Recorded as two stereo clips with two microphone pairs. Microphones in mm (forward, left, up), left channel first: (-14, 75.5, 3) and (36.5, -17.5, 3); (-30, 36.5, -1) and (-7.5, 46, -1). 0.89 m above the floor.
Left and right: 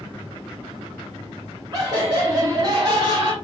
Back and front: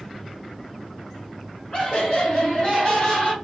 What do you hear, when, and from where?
1.7 s laughter: 110° right, 2.5 m